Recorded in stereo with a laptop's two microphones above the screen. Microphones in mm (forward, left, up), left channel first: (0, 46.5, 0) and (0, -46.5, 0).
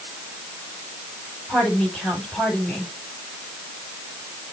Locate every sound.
1.5 s a woman speaking: 10° left (ahead or behind), 5 m